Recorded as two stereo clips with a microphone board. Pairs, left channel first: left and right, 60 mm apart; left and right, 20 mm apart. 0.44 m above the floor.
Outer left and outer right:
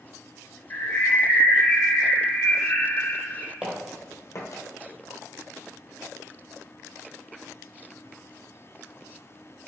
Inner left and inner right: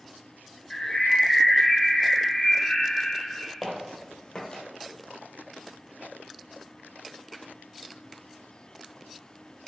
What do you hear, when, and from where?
0.7 s a bird: 35° left (ahead or behind), 0.7 m
3.6 s footsteps: 20° right (ahead or behind), 0.8 m; by 4.6 s 60° left (ahead or behind), 0.9 m